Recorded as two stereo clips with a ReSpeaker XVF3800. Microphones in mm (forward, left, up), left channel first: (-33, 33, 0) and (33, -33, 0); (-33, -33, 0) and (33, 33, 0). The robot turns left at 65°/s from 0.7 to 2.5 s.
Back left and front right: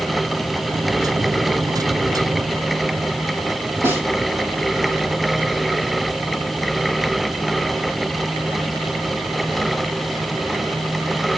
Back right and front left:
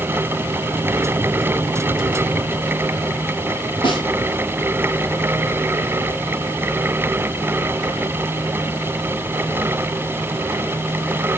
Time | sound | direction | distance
3.8 | a snare drum | 110° right | 6.5 m